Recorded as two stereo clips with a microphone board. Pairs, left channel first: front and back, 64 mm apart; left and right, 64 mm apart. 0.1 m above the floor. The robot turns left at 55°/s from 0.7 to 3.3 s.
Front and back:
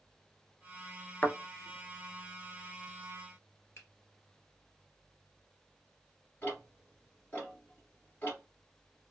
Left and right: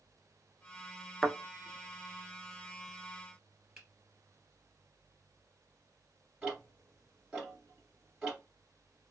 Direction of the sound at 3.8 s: 10° right.